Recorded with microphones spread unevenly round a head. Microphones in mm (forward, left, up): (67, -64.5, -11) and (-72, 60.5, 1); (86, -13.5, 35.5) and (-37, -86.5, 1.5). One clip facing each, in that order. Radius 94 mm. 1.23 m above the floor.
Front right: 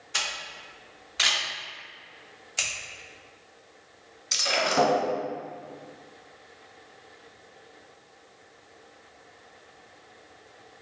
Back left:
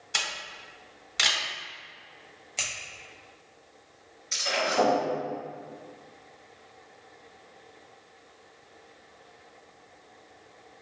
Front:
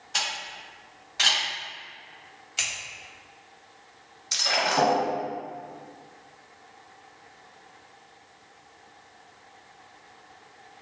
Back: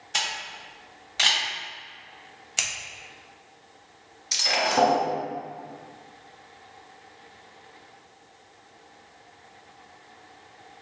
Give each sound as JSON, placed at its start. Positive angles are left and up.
{"t": 0.1, "sound": "a camera shutter", "azimuth_deg": 145, "distance_m": 1.6}
{"t": 2.6, "sound": "scissors", "azimuth_deg": -120, "distance_m": 0.9}
{"t": 4.3, "sound": "breaking glass", "azimuth_deg": -70, "distance_m": 1.1}